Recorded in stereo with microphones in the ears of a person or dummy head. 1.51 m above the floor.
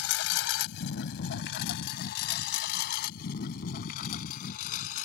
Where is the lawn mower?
70° left (ahead or behind); by 5.0 s 50° left (ahead or behind).